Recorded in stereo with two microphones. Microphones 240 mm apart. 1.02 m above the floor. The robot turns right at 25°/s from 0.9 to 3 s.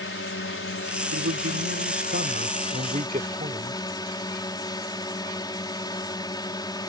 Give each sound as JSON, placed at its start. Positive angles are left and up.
{"t": 0.0, "sound": "a drone", "azimuth_deg": 110}
{"t": 1.1, "sound": "a man speaking", "azimuth_deg": -80}